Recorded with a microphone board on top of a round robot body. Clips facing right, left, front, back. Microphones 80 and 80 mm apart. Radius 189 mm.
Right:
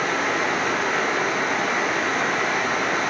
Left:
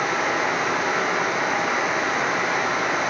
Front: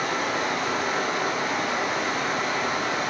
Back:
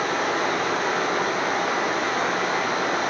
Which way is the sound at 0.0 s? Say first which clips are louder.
Even, back 3 dB; 175° left.